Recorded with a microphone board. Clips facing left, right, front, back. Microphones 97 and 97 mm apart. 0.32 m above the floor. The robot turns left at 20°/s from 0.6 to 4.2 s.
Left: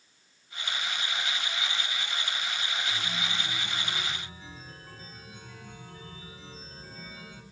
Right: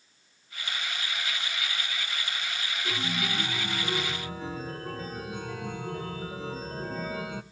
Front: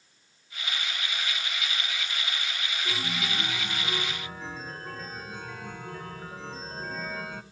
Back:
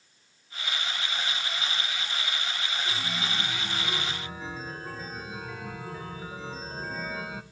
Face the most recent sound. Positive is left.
turn(degrees=-95)